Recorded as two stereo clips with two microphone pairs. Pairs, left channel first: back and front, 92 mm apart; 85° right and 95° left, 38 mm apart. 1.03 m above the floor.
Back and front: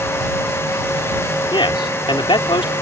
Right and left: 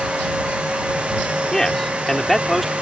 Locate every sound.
1.5 s a man speaking: 160° right; by 2.7 s 175° right